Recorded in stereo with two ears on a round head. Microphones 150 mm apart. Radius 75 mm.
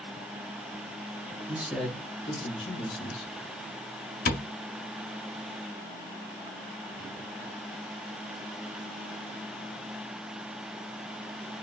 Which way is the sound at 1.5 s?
15° right (ahead or behind).